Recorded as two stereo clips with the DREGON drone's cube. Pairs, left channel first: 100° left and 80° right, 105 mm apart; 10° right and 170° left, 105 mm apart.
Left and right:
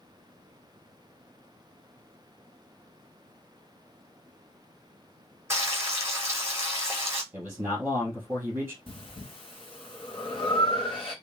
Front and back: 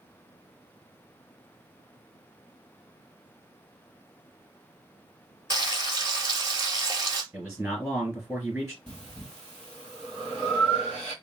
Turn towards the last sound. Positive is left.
turn(degrees=70)